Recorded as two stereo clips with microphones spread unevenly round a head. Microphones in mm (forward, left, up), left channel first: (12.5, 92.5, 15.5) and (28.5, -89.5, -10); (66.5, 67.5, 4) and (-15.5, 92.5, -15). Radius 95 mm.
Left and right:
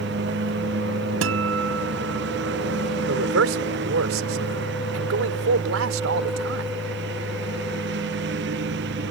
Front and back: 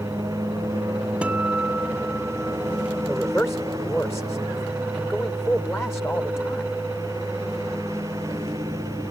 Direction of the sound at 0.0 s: 120° right.